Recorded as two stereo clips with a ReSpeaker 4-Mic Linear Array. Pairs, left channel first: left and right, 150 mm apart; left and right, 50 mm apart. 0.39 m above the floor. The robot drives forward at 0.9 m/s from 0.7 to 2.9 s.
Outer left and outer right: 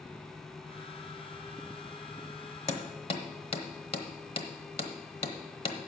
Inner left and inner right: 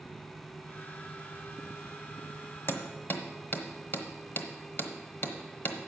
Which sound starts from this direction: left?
Hammering, at 2.7 s.